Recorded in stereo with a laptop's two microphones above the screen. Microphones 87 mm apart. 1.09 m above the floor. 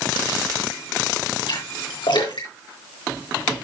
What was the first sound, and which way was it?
A splash, 75° left (ahead or behind).